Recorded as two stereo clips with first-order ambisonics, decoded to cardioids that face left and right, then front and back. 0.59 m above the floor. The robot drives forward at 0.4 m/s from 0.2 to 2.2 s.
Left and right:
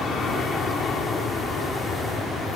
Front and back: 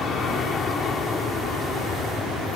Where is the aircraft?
45° left; by 2.6 s 50° left.